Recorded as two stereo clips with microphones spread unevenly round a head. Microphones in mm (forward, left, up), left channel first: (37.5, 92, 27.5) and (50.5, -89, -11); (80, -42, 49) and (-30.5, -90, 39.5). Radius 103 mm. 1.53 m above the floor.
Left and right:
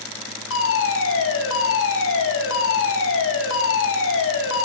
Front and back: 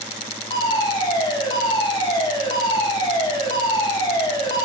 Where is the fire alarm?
90° left, 4 m.